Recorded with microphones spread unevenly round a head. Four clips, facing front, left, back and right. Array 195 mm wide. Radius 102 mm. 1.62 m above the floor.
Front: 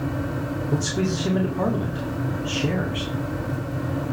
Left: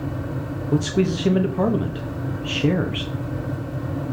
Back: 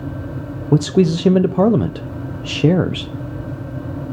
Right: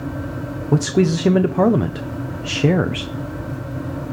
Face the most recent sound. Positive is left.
turn(degrees=-160)